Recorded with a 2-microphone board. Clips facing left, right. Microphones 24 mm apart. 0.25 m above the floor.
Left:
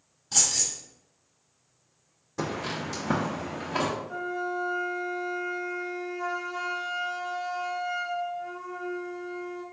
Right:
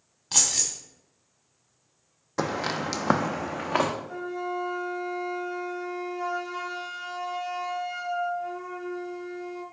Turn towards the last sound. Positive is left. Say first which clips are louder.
# left 1 dB
turn(degrees=-15)  # may be behind; listen again after turning